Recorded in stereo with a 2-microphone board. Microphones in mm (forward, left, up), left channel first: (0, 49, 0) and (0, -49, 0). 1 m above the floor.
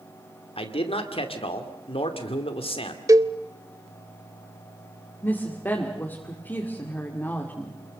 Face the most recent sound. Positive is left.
turn(degrees=20)  # may be behind; listen again after turning